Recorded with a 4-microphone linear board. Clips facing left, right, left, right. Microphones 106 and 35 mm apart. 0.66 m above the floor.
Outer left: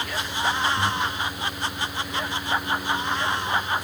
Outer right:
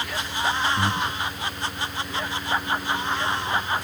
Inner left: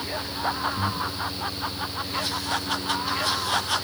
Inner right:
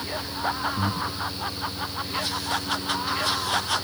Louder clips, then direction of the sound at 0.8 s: Even, even; 45° right (ahead or behind).